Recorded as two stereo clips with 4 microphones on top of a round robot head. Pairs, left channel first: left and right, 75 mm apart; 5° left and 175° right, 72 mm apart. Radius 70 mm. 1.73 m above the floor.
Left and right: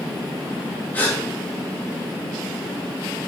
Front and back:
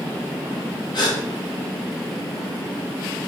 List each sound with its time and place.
0.9 s a gasp: 20° left, 2.5 m